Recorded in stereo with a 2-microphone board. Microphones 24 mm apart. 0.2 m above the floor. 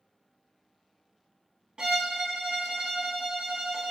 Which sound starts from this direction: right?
A violin, at 1.8 s.